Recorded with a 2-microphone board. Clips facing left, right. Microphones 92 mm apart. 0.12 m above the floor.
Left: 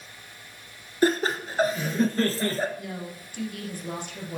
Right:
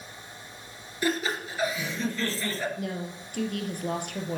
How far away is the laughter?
About 1.6 m.